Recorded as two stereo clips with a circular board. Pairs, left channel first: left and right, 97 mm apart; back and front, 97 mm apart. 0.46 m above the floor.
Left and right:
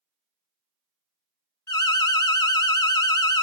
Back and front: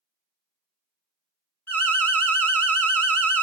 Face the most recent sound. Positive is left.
turn(degrees=120)